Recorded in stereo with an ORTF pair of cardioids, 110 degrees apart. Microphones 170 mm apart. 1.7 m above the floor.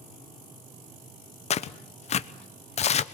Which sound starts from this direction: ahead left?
Tearing paper, at 1.5 s.